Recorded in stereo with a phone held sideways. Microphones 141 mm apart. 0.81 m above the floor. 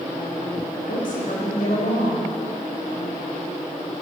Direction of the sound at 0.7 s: 75° left (ahead or behind).